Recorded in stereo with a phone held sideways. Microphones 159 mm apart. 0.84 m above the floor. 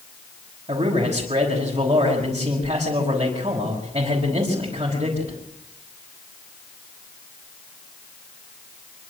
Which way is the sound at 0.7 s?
40° right (ahead or behind).